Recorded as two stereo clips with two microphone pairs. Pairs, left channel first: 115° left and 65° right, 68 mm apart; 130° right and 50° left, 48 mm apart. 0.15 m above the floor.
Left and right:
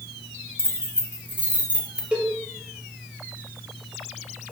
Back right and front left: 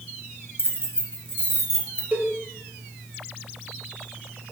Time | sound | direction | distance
0.6 | keys jangling | 105° right | 1.8 m
2.1 | a cowbell | 10° left | 2 m